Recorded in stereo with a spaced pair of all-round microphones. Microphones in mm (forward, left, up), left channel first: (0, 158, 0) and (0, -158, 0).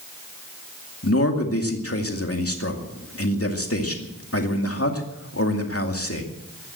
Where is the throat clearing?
I don't hear throat clearing.